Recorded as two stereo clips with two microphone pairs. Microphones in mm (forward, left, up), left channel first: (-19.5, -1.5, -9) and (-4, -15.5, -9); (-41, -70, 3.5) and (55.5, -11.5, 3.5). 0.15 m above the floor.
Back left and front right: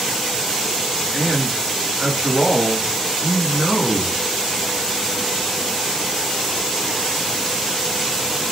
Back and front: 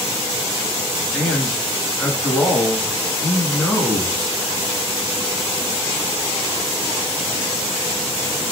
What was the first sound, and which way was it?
A man speaking, 80° right.